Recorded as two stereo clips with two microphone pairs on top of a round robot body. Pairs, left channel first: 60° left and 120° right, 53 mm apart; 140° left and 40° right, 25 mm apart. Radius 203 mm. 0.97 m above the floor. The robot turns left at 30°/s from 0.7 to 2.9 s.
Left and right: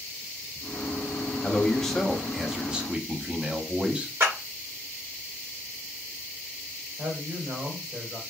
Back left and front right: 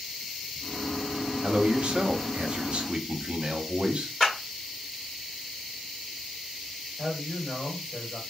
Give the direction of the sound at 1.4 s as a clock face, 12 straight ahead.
12 o'clock.